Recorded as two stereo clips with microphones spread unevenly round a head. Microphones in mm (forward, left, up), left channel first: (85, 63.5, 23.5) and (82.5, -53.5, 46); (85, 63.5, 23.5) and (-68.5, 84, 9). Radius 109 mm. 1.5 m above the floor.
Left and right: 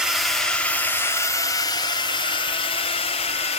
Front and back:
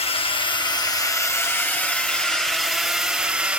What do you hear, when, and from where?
0.0 s a drone: 5° left; by 3.6 s 90° left